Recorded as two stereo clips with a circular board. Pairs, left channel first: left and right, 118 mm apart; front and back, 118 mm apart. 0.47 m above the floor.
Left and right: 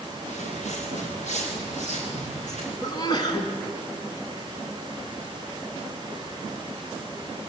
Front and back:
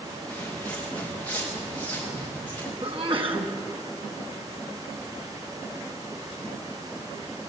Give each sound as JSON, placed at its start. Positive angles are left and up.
{"t": 0.3, "sound": "footsteps", "azimuth_deg": 80, "distance_m": 5.5}
{"t": 2.8, "sound": "a sneeze", "azimuth_deg": 140, "distance_m": 3.5}